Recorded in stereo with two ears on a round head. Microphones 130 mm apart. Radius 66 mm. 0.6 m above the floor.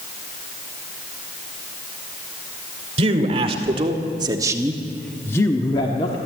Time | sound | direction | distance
3.0 | a man speaking | 45° right (ahead or behind) | 2.5 m